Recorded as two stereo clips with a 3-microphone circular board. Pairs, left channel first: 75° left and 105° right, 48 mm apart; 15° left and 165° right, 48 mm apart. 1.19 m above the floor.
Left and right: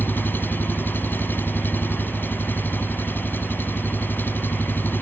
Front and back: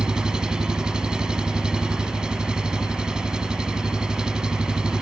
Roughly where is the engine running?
Behind left.